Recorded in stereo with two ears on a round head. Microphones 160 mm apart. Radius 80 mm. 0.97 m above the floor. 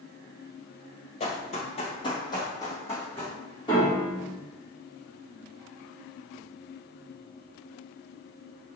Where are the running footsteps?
35° left (ahead or behind), 1.2 m; by 3.3 s 10° left (ahead or behind), 3 m.